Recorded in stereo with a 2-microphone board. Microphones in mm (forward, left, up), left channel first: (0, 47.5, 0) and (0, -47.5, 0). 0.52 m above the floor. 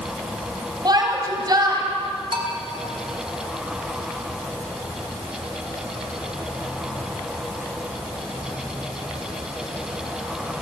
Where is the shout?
45° right (ahead or behind), 3 m.